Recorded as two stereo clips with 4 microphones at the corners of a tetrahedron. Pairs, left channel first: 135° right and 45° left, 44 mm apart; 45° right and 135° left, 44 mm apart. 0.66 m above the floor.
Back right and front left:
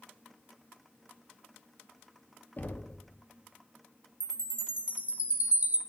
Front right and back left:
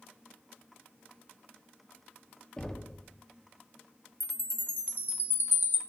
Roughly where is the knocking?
Behind right.